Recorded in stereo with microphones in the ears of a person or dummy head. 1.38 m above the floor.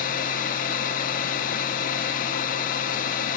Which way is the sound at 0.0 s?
50° left (ahead or behind).